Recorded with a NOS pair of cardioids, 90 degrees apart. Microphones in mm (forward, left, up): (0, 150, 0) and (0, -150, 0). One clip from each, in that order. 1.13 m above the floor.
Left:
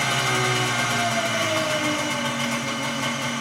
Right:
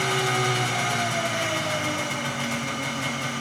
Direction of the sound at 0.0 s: 5° left.